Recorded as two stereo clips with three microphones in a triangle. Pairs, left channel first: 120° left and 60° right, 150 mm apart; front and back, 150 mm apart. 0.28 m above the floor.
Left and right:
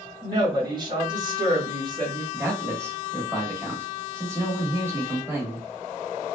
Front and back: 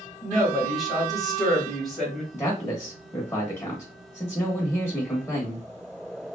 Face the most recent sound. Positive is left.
turn(degrees=-25)